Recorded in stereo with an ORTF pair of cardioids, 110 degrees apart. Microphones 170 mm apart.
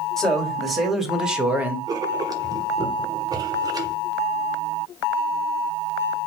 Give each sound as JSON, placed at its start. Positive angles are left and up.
{"t": 0.2, "sound": "a man speaking", "azimuth_deg": 5, "distance_m": 2.0}
{"t": 1.9, "sound": "writing", "azimuth_deg": -25, "distance_m": 1.1}